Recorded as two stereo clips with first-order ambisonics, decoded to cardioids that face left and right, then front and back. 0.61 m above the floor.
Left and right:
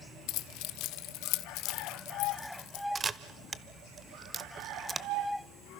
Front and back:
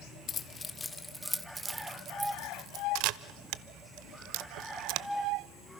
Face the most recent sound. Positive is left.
turn(degrees=-160)